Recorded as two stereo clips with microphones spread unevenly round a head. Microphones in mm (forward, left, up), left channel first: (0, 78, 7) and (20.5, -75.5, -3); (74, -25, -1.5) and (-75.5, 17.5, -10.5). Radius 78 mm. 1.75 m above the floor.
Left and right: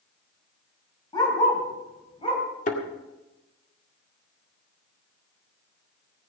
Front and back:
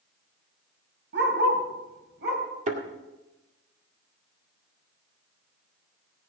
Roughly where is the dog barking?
Behind.